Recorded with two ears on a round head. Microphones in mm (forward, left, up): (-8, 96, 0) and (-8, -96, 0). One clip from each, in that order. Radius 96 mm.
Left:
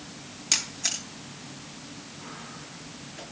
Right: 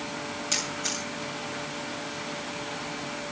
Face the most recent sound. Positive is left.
turn(degrees=35)  # may be behind; listen again after turning